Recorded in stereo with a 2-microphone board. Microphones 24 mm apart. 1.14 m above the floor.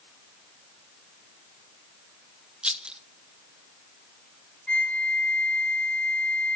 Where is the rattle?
45° right (ahead or behind), 0.6 m.